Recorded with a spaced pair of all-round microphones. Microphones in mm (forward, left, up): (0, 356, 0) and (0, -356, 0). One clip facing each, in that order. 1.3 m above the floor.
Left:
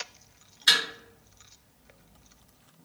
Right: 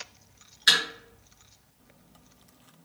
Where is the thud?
30° right (ahead or behind), 2.0 m.